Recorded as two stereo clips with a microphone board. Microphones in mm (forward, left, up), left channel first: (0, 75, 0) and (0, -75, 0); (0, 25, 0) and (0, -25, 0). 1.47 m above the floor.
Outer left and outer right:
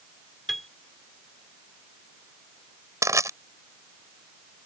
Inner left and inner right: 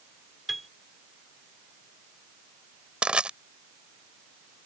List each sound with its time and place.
0.5 s a piano: centre (ahead or behind)
3.0 s crushing: 20° right (ahead or behind)